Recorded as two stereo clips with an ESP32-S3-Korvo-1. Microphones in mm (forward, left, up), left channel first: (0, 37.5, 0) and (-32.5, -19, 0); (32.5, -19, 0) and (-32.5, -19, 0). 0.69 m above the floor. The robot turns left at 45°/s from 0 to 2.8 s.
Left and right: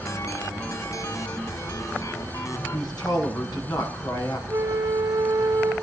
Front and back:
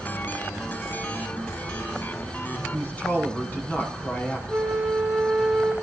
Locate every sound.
2.7 s a man speaking: 70° left, 7 m; by 4.4 s 65° left, 7 m
4.5 s a flute: 100° right, 2 m